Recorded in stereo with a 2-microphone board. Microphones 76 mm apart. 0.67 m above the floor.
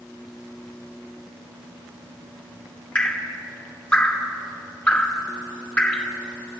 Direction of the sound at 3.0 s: 15° left (ahead or behind).